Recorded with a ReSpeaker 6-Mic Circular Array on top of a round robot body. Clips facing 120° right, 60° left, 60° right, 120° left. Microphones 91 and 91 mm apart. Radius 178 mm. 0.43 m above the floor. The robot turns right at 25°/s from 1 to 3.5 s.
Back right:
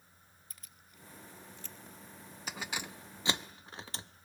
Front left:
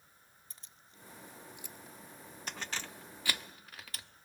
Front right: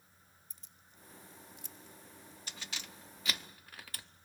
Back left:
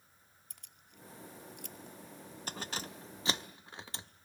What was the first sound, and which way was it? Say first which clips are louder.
Keys jangling: even, back left 2 dB; 120° left.